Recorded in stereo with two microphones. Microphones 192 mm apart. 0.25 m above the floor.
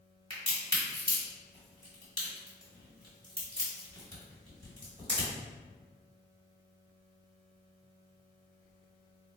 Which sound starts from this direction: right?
A crack, at 0.3 s.